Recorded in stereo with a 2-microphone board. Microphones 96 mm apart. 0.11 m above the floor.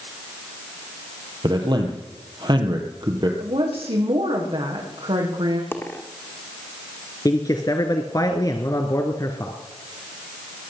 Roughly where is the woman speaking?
Right.